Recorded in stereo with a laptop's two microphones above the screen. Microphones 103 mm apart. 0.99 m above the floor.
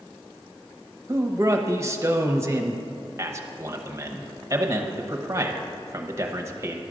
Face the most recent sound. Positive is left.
turn(degrees=-30)  # may be behind; listen again after turning